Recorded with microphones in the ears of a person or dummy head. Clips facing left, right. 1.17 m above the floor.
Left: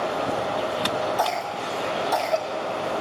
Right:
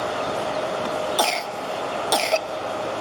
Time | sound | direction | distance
1.2 | a cough | 40° right (ahead or behind) | 1.0 m